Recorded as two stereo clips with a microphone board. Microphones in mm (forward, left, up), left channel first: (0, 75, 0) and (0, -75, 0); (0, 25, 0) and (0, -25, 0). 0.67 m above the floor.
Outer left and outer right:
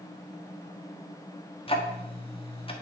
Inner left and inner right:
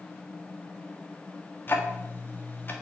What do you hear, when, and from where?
1.7 s ticking: 35° left (ahead or behind), 1.5 m